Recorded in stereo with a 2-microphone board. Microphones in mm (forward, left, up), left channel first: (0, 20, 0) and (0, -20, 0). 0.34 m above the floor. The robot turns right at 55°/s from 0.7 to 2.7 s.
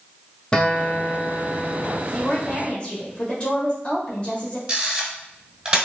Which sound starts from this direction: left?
A woman speaking, at 2.1 s.